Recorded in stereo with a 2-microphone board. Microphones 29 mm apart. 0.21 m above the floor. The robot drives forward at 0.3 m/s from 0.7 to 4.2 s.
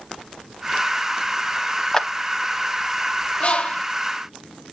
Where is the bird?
40° left (ahead or behind), 1.4 m.